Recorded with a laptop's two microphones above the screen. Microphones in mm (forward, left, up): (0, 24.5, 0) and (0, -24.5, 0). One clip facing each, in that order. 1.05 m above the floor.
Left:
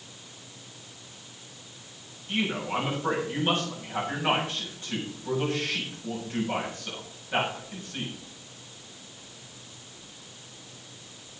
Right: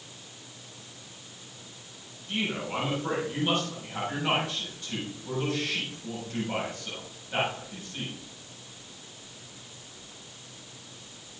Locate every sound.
2.3 s a man speaking: 25° left (ahead or behind), 7 m